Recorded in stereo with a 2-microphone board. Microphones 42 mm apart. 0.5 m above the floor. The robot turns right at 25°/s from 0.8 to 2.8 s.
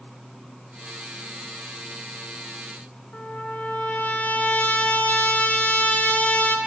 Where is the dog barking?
No dog barking in this recording.